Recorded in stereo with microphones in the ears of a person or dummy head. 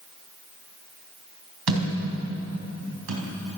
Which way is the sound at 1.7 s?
75° right (ahead or behind).